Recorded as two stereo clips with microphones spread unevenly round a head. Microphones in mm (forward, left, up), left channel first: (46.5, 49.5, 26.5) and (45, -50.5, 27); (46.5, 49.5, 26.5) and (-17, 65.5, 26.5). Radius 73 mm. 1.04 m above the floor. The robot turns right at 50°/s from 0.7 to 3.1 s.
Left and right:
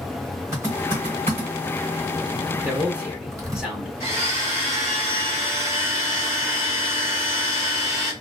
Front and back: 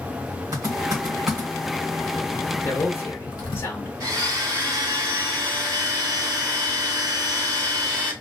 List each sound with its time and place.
0.5 s typing on a keyboard: 160° right, 1.2 m; by 3.6 s 40° right, 1.2 m
2.6 s a man speaking: 35° right, 0.8 m; by 3.9 s 10° right, 0.8 m
4.0 s a blender: 160° right, 1.4 m